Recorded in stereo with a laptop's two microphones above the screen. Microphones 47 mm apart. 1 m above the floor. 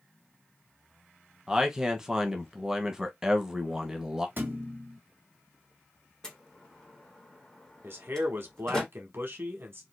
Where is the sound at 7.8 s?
50° right (ahead or behind), 0.9 m.